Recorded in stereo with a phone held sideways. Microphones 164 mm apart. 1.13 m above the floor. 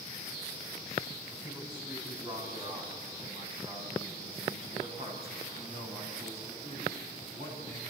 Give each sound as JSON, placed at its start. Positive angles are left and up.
{"t": 1.4, "sound": "a man speaking", "side_deg": -20, "distance_m": 7.5}